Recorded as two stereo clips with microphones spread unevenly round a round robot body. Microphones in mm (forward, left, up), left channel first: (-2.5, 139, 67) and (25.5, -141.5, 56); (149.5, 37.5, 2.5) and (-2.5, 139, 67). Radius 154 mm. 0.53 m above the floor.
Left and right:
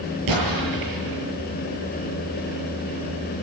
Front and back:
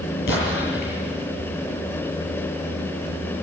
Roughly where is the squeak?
No squeak in this recording.